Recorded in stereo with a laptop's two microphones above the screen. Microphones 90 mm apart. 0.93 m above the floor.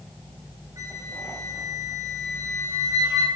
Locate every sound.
0.8 s a flute: 35° right (ahead or behind), 6.5 m